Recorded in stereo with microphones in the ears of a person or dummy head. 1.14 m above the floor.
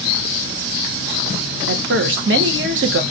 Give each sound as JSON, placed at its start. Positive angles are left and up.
{"t": 1.7, "sound": "a woman speaking", "side_deg": -60, "distance_m": 0.8}